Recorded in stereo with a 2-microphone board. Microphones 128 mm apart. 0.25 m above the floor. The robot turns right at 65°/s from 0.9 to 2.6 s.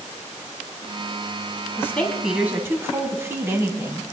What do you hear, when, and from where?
1.8 s a woman speaking: 155° left, 1.8 m; by 4.0 s 155° right, 1.8 m